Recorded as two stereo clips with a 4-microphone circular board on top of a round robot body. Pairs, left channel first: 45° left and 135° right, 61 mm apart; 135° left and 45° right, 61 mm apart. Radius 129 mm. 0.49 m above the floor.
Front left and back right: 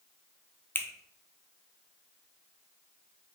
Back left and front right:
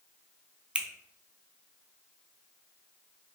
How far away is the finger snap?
About 0.6 m.